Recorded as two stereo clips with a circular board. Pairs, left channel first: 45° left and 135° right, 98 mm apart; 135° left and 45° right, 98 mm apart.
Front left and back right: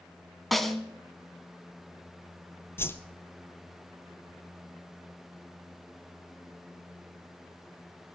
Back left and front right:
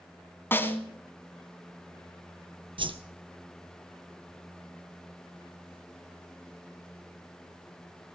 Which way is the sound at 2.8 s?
20° right.